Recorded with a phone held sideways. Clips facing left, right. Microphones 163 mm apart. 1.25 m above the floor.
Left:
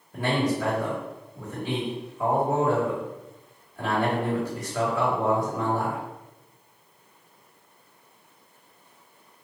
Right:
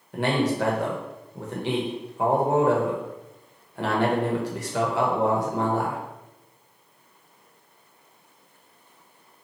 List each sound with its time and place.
0.1 s a man speaking: 85° right, 1.2 m